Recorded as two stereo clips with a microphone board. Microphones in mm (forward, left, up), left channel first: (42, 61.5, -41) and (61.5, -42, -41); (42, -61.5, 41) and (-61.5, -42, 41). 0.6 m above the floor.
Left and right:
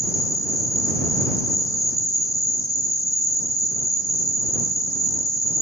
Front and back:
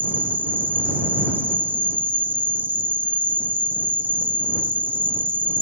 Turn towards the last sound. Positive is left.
turn(degrees=115)